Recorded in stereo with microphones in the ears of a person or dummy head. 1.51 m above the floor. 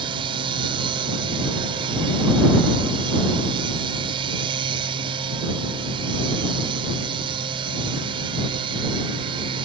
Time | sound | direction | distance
0.0 | a machine running | 30° right (ahead or behind) | ?